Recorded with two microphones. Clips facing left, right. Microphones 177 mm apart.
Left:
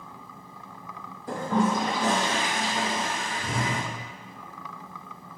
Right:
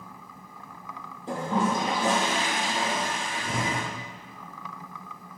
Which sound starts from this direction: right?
A toilet flushing, at 1.3 s.